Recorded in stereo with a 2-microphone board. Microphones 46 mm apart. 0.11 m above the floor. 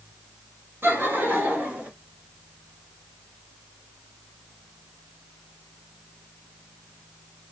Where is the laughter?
45° right (ahead or behind), 2 m; by 1.9 s 35° right (ahead or behind), 1.6 m.